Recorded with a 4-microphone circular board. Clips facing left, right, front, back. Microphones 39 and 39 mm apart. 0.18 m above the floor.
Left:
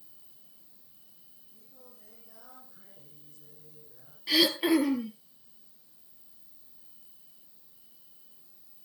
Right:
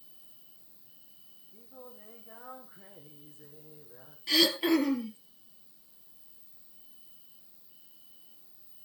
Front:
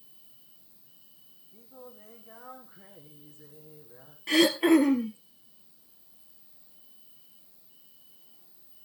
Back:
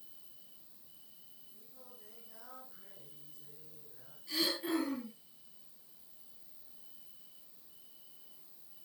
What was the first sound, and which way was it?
An insect, 65° right.